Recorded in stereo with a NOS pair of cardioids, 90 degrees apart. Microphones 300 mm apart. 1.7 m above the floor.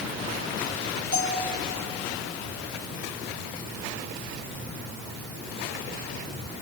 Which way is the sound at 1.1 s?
45° left.